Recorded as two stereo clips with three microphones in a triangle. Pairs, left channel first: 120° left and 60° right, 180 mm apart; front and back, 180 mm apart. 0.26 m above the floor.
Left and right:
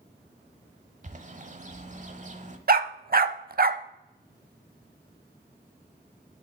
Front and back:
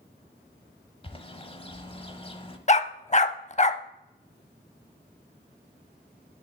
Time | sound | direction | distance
1.0 | a bird | 45° right | 1.0 m
2.7 | a dog barking | 45° right | 0.6 m